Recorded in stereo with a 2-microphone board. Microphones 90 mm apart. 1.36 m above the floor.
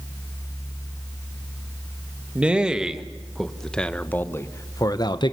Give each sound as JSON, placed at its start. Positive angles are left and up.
{"t": 2.4, "sound": "a man speaking", "side_deg": -15, "distance_m": 1.8}